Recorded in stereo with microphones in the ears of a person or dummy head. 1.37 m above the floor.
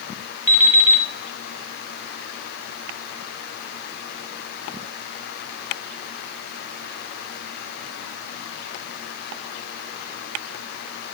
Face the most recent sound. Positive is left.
turn(degrees=30)  # may be behind; listen again after turning